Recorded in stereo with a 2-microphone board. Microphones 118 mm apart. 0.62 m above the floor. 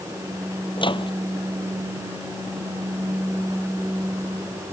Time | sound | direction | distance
0.8 | a microwave | 45° left (ahead or behind) | ?